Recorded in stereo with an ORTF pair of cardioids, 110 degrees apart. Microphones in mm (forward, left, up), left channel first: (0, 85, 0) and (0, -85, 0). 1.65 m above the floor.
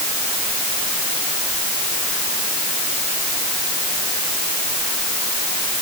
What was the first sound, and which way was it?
Only background noise.